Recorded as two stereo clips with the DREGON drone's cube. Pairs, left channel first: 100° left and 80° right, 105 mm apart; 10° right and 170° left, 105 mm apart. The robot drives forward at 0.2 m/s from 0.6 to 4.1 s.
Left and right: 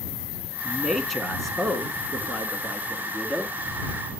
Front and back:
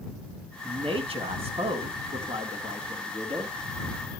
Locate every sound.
0.6 s a man speaking: 170° right, 2.5 m